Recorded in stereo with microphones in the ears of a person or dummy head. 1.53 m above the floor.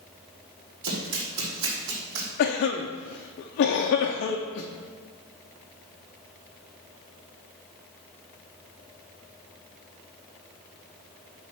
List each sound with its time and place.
0.8 s running footsteps: 60° right (ahead or behind), 3 m; by 2.3 s 55° right (ahead or behind), 4 m
2.4 s a cough: 50° left (ahead or behind), 0.6 m